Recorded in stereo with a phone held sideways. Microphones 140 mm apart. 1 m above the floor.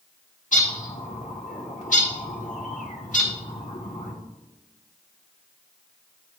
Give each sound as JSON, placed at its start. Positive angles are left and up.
{"t": 0.5, "sound": "a bird", "side_deg": 75, "distance_m": 1.4}